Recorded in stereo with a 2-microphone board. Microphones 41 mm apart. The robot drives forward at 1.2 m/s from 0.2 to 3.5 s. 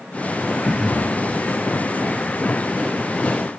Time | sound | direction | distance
0.6 | throat clearing | centre (ahead or behind) | 3 m